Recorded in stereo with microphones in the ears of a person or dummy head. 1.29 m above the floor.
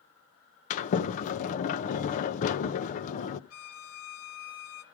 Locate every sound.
0.7 s a sliding door: 40° left (ahead or behind), 1.0 m
3.5 s a violin: 75° left (ahead or behind), 2.5 m